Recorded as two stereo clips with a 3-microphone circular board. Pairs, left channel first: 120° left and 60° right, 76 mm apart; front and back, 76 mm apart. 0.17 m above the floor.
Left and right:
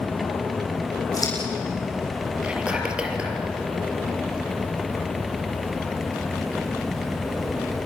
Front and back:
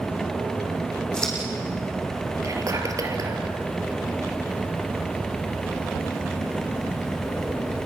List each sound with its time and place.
1.1 s scissors: 80° left, 7.5 m
2.4 s whispering: 135° right, 4 m